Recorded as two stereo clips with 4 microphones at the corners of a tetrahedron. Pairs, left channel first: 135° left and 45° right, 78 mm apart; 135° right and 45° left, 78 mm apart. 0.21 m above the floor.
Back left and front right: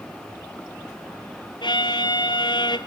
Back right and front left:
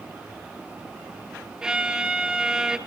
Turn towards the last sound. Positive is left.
turn(degrees=125)